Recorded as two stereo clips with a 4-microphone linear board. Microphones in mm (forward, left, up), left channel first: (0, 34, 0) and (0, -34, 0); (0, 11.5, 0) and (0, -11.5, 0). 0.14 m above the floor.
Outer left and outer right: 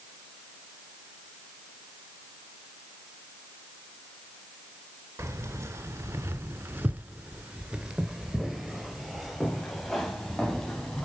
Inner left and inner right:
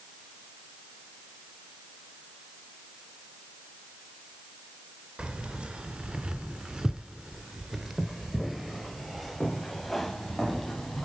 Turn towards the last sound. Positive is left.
turn(degrees=10)  # may be behind; listen again after turning